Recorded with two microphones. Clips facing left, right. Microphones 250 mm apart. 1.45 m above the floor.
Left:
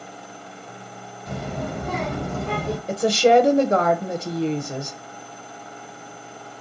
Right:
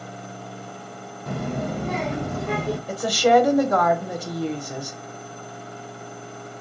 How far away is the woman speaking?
About 0.5 m.